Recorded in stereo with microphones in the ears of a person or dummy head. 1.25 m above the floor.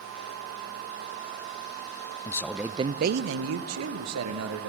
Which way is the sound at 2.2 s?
20° left (ahead or behind).